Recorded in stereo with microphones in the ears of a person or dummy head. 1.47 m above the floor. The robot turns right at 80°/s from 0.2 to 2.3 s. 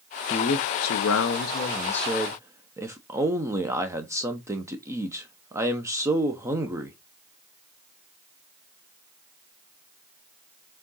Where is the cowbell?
I don't hear a cowbell.